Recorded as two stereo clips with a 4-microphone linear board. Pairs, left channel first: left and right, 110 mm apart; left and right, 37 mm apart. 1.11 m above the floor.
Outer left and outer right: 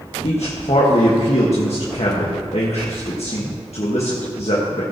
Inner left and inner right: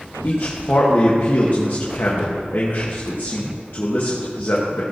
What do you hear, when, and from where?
0.2 s a man speaking: 70° left (ahead or behind), 1.4 m